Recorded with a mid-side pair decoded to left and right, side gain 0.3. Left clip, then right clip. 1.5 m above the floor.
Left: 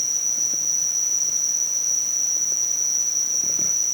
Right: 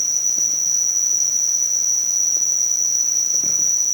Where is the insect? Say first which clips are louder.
Right 3 dB; 65° right, 3 m.